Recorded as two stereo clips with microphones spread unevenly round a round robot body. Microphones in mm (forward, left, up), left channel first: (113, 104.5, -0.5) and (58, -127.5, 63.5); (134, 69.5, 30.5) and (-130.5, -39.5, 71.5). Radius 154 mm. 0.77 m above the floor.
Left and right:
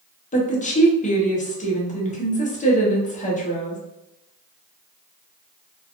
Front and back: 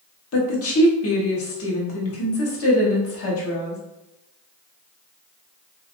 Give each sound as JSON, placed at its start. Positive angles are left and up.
{"t": 0.3, "sound": "a woman speaking", "azimuth_deg": 35, "distance_m": 1.0}